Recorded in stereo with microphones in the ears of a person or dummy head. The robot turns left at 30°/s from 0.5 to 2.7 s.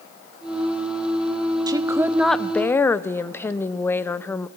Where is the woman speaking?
160° right, 0.6 m; by 4.5 s 170° left, 0.6 m.